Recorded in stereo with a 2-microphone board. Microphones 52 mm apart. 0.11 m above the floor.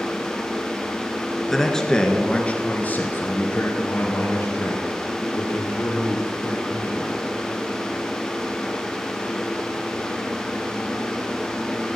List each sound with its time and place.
1.5 s a man speaking: 5° left (ahead or behind), 1.5 m; by 7.2 s 60° left (ahead or behind), 4 m